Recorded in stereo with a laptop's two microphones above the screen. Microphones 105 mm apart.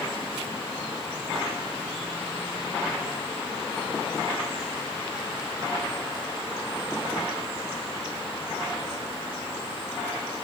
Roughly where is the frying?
No frying in this recording.